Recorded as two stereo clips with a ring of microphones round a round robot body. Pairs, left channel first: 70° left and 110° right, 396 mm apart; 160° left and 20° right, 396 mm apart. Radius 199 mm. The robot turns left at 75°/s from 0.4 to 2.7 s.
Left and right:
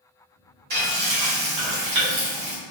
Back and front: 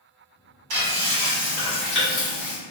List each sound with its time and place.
0.7 s frying: 50° right, 1.2 m; by 2.6 s 170° left, 1.2 m